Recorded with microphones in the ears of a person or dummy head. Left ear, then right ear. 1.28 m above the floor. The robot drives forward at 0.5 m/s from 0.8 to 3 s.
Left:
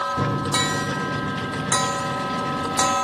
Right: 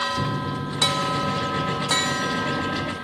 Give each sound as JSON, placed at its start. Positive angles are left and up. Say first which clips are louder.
{"t": 0.2, "sound": "a microwave", "louder": "left 5 dB", "side_deg": 30, "distance_m": 0.5}